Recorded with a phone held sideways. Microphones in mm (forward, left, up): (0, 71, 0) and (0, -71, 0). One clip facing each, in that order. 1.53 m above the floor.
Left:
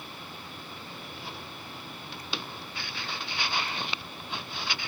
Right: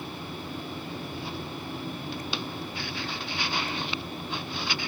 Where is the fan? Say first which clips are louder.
Right 7 dB; 45° right (ahead or behind).